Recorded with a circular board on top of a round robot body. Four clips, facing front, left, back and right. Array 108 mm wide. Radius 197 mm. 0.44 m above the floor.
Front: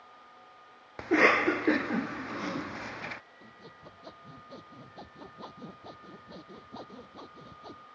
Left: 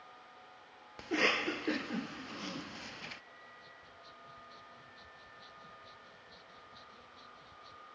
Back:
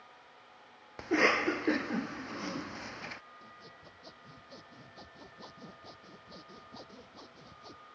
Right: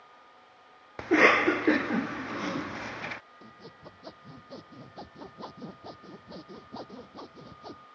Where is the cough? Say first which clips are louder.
Right 12 dB, front 4 dB; 70° right.